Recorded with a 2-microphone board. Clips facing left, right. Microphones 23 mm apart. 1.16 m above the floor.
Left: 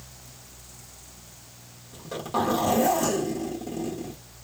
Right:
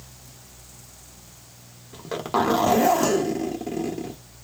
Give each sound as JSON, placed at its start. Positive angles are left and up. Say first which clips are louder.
{"t": 1.9, "sound": "a zipper", "louder": "right 4 dB", "side_deg": -35, "distance_m": 1.1}